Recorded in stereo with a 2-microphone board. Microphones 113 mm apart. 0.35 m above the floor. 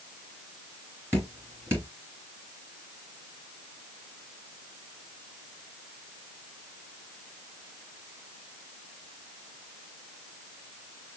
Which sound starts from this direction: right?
Dripping, at 1.1 s.